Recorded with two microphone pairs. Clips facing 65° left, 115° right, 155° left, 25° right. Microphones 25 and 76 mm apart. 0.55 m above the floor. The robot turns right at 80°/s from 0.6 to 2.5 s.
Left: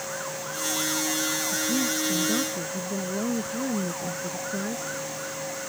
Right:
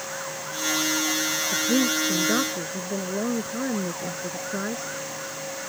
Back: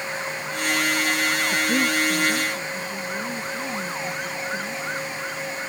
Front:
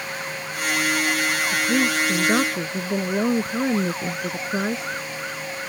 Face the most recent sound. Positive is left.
turn(degrees=-50)